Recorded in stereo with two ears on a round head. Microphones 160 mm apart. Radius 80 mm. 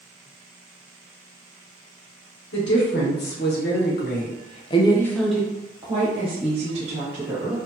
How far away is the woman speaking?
About 1.6 m.